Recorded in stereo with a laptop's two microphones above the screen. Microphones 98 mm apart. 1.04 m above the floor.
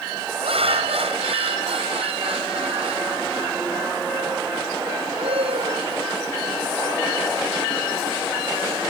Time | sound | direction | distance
0.4 | laughter | 85° right | ?